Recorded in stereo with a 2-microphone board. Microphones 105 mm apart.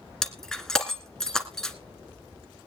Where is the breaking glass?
5° left (ahead or behind), 1.9 m.